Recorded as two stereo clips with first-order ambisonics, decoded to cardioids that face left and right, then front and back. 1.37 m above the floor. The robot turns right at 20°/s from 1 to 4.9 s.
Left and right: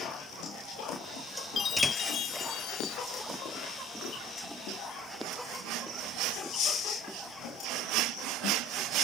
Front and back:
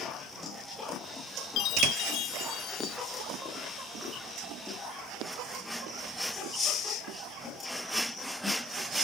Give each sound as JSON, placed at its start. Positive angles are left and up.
{"t": 1.6, "sound": "a chime", "azimuth_deg": 25}